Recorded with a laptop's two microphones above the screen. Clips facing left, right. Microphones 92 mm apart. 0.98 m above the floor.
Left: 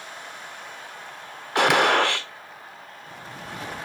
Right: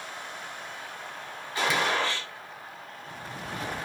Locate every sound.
1.6 s a gunshot: 70° left (ahead or behind), 0.5 m